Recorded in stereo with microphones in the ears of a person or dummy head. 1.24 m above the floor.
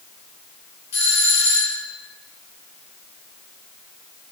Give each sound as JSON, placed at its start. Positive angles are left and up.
{"t": 0.9, "sound": "a doorbell", "side_deg": 65, "distance_m": 4.0}